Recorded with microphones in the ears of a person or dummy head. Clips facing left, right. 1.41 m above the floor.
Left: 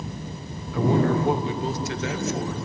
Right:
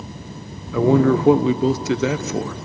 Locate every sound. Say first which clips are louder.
0.7 s a man speaking: right 6 dB; 55° right (ahead or behind), 0.8 m